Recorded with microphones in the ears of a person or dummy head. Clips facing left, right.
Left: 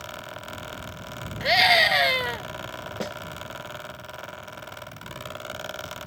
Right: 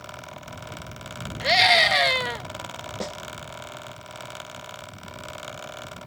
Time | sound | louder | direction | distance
1.4 | a scream | even | 5° left (ahead or behind) | ?
3.0 | a snare drum | even | 5° left (ahead or behind) | ?